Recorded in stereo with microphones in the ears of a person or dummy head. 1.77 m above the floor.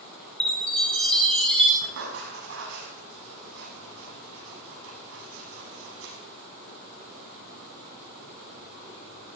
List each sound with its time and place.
0.4 s a chime: centre (ahead or behind), 2.5 m
1.8 s writing: 75° right (ahead or behind), 5.5 m